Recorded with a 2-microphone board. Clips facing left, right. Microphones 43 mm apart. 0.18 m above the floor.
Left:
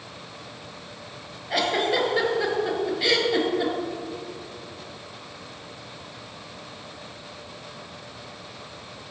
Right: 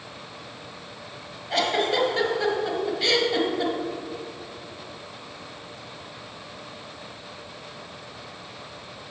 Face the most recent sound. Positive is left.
turn(degrees=15)  # may be behind; listen again after turning